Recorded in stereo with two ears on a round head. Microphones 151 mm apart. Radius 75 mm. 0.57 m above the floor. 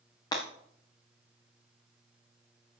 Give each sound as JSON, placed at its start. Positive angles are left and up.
{"t": 0.3, "sound": "breaking glass", "side_deg": 25, "distance_m": 3.0}